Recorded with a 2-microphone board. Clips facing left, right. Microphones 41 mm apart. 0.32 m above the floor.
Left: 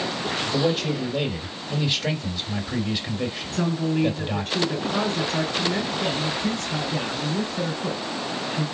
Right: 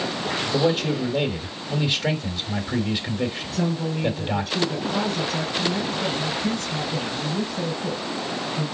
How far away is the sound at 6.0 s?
About 3 m.